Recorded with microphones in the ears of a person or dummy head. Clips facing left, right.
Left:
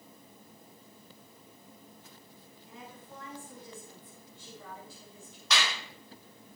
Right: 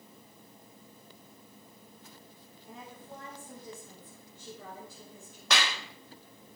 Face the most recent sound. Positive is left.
turn(degrees=-55)  # may be behind; listen again after turning